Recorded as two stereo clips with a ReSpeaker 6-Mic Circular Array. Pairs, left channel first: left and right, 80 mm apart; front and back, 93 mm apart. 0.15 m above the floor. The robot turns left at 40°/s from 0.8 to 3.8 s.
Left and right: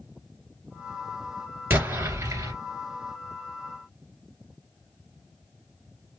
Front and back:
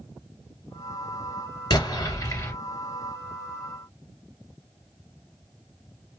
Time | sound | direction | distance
1.7 | an explosion | 25° right | 2.5 m